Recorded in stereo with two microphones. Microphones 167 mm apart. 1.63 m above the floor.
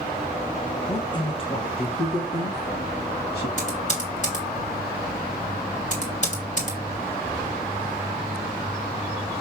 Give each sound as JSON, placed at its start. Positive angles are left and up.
{"t": 0.9, "sound": "a man speaking", "side_deg": 20, "distance_m": 1.5}
{"t": 3.6, "sound": "typing on a keyboard", "side_deg": 45, "distance_m": 2.0}